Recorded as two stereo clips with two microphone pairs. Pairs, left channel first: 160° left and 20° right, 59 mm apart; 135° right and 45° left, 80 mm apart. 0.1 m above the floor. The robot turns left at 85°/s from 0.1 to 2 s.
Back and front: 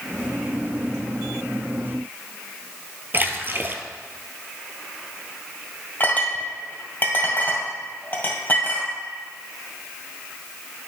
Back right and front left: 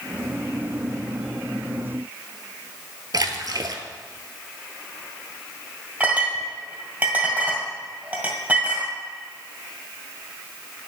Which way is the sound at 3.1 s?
25° left.